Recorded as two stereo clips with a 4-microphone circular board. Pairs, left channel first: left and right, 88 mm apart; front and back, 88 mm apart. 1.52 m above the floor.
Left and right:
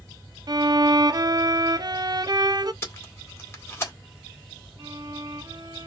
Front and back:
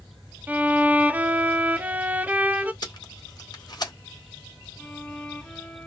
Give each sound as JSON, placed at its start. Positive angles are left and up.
{"t": 0.5, "sound": "a violin", "azimuth_deg": -110, "distance_m": 0.6}
{"t": 2.8, "sound": "tape being pulled", "azimuth_deg": 30, "distance_m": 2.0}
{"t": 4.8, "sound": "a violin", "azimuth_deg": -75, "distance_m": 1.2}